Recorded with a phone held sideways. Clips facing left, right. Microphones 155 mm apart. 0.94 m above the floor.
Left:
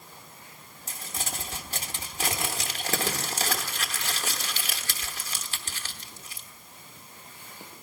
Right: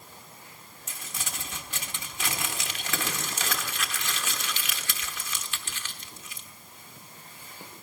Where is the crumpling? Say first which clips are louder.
Left 4 dB; 35° left (ahead or behind), 1.1 m.